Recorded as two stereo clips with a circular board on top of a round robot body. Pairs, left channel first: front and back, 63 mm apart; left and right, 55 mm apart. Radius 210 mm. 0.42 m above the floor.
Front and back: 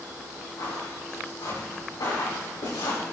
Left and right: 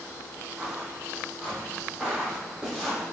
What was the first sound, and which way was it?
Footsteps, 20° right.